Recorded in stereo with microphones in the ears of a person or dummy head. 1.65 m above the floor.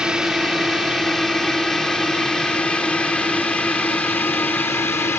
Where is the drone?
Centre (ahead or behind); by 5.2 s 15° left (ahead or behind).